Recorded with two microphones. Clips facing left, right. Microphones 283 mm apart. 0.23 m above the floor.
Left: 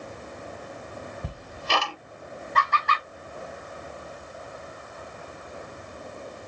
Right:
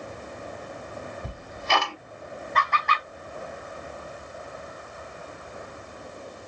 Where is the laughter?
45° left (ahead or behind), 1.3 m.